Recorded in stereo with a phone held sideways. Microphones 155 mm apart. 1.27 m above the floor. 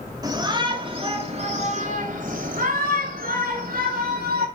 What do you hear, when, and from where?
0.2 s a shout: 25° right (ahead or behind), 3 m; by 4.5 s 85° right, 4.5 m